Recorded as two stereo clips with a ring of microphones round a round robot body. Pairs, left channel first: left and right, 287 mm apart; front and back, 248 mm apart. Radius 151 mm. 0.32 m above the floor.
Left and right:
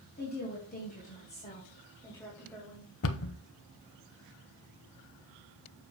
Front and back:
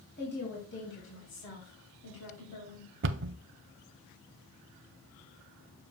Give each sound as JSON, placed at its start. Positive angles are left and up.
{"t": 0.2, "sound": "a woman speaking", "azimuth_deg": 40, "distance_m": 3.0}
{"t": 3.0, "sound": "a cupboard door", "azimuth_deg": 135, "distance_m": 0.6}